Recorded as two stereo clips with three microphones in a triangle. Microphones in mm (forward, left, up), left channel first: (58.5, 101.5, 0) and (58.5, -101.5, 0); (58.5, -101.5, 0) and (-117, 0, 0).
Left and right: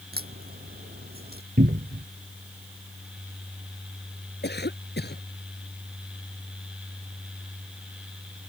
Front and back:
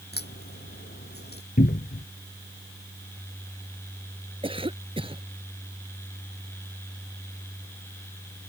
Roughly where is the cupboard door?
Ahead right.